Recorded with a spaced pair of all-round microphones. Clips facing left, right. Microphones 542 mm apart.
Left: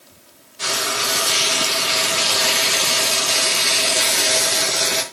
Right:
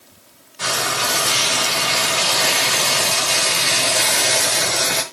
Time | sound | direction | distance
0.6 | frying | 70° right (ahead or behind) | 1.2 m